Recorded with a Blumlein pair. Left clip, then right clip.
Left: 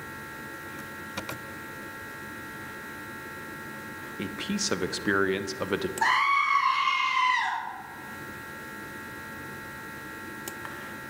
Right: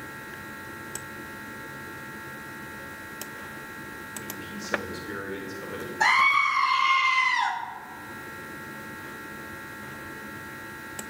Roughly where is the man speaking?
Ahead left.